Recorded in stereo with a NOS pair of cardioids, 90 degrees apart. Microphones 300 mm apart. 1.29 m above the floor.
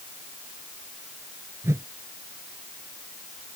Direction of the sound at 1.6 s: 10° right.